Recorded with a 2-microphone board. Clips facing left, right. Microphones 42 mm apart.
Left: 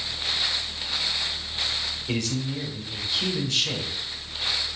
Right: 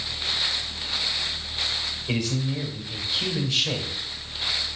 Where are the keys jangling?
No keys jangling in this recording.